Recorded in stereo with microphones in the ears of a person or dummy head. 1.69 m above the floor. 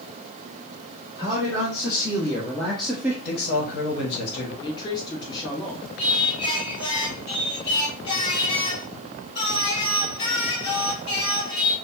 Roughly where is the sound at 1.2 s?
Left.